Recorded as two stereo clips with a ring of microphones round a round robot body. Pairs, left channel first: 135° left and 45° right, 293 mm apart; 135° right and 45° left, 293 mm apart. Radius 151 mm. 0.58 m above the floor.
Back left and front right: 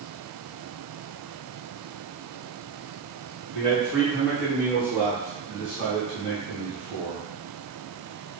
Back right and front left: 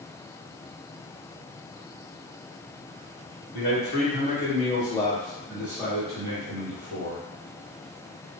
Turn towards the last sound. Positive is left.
turn(degrees=10)